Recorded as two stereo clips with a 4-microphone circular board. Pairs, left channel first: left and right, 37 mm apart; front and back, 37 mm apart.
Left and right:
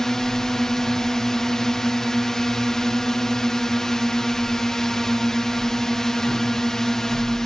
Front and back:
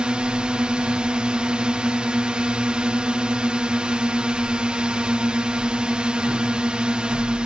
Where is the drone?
155° left.